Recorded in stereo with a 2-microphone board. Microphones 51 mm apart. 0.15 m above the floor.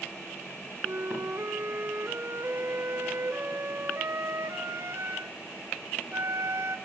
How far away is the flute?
About 0.6 m.